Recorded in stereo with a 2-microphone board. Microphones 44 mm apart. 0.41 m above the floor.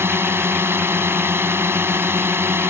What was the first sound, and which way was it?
A drone, 65° right (ahead or behind).